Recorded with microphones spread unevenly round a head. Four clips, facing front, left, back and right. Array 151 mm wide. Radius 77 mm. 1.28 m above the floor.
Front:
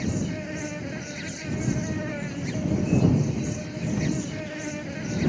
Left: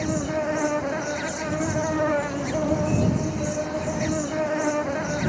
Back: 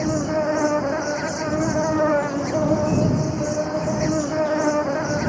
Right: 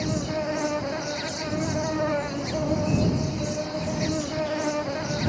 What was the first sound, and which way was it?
An insect, 170° left.